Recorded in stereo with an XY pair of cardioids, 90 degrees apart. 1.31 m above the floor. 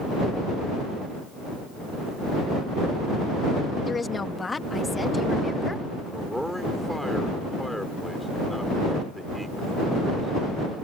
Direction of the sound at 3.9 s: 35° left.